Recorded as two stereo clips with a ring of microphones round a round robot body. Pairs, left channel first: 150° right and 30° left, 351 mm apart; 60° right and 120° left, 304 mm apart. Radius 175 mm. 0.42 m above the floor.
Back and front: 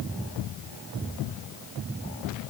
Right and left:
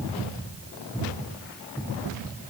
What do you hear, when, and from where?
Only background noise.